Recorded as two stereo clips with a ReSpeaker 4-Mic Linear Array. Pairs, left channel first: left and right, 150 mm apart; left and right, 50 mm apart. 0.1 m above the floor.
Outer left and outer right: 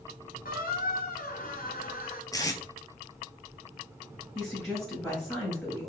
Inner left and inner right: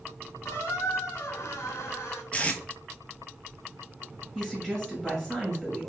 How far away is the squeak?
About 0.9 m.